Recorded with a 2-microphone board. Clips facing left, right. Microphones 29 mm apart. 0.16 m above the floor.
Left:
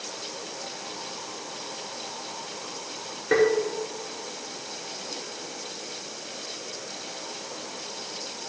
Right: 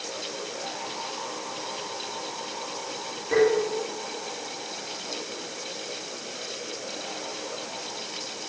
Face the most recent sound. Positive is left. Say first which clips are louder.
# even
turn(degrees=65)  # may be behind; listen again after turning